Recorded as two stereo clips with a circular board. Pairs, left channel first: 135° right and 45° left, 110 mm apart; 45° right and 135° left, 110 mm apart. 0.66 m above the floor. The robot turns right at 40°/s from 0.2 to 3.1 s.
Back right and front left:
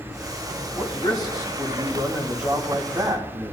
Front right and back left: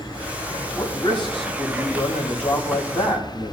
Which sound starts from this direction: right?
A man speaking, at 0.8 s.